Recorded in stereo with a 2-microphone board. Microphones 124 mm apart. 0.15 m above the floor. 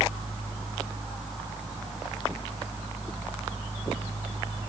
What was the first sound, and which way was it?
Only background noise.